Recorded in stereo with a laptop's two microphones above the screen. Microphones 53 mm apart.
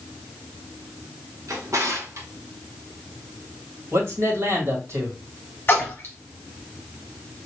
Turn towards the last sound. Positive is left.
turn(degrees=40)  # may be behind; listen again after turning